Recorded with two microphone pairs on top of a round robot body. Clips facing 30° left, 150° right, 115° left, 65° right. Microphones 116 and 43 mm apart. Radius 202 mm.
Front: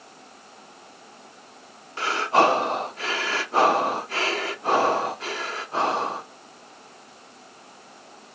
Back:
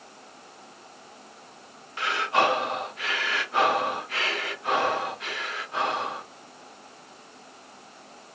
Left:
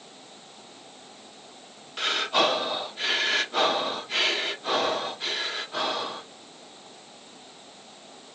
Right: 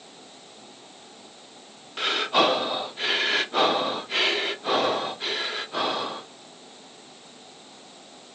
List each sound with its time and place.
2.0 s breathing: 25° left, 1.2 m